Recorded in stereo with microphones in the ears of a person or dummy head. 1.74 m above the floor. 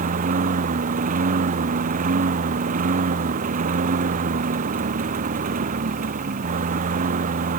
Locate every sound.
0.0 s a lawn mower: 45° right (ahead or behind)